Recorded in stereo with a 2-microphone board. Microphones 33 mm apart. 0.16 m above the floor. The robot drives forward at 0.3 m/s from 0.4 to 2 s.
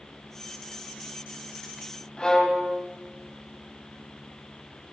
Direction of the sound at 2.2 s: 25° left (ahead or behind).